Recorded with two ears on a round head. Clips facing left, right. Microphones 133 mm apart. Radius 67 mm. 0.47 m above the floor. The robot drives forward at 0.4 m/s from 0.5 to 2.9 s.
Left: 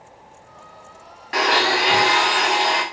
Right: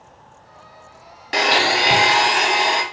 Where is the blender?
35° right (ahead or behind), 0.6 m; by 2.8 s 20° right (ahead or behind), 0.9 m.